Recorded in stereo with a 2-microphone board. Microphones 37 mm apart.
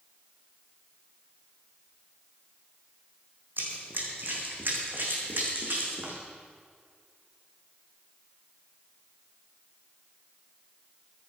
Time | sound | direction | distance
3.6 | running footsteps | 65° right (ahead or behind) | 4 m